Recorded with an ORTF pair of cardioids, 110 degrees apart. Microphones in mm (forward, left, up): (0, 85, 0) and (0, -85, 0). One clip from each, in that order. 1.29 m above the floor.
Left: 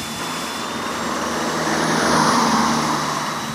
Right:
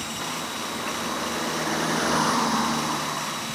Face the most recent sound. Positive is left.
turn(degrees=40)